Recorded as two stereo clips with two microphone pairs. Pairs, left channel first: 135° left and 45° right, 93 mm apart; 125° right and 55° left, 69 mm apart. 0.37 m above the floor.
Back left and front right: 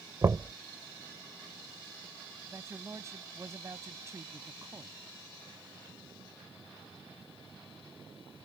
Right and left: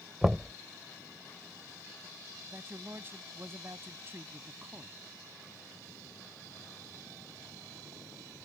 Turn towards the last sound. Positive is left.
turn(degrees=10)